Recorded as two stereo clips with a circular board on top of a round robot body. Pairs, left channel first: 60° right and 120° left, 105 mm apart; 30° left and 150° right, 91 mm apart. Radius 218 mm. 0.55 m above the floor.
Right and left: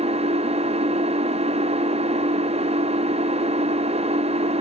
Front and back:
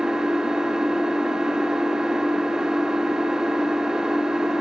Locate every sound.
0.0 s an engine running: 125° left, 1.6 m